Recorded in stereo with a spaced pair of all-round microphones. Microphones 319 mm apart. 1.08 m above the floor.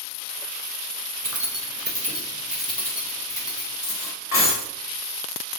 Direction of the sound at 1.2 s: 70° right (ahead or behind).